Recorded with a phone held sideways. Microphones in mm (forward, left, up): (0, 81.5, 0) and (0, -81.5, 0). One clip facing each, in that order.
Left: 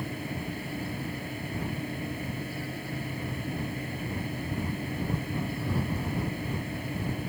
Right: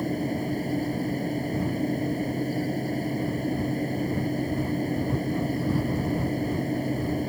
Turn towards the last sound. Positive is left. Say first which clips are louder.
# right 8 dB
turn(degrees=-40)  # may be behind; listen again after turning